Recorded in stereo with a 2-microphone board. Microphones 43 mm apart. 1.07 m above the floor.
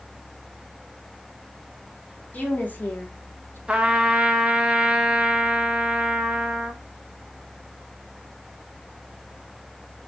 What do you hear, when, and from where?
2.3 s a woman speaking: 35° left (ahead or behind), 1.2 m; by 3.6 s 55° left (ahead or behind), 0.9 m
3.7 s a trumpet: 25° right (ahead or behind), 0.6 m